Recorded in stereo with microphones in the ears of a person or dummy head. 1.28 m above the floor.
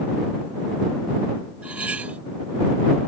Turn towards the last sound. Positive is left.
turn(degrees=-10)  # may be behind; listen again after turning